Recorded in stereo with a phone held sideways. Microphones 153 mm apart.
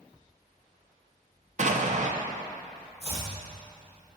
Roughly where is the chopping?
Right.